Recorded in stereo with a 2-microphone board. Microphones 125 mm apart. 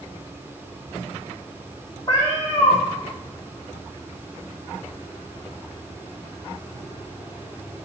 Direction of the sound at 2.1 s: 30° left (ahead or behind).